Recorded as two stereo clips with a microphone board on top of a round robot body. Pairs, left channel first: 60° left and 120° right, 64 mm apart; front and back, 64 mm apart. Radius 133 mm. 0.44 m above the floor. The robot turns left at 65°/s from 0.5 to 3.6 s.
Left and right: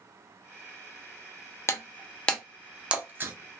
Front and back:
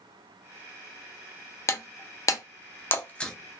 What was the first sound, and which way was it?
Breaking glass, 25° left.